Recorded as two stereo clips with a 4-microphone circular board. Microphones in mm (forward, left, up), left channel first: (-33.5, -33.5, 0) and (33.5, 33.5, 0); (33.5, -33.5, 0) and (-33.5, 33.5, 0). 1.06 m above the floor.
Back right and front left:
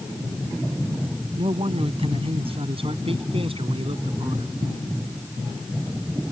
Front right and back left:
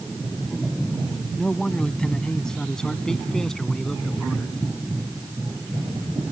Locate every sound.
1.4 s a man speaking: 35° left; by 4.5 s 40° left